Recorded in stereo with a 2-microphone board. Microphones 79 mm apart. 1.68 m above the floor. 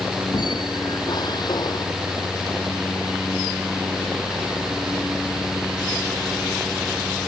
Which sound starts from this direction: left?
A squeak, at 0.3 s.